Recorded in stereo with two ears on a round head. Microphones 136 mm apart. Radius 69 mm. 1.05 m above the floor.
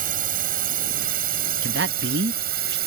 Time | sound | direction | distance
0.0 | a drone | 60° right (ahead or behind) | ?
1.6 | a man speaking | 80° right | ?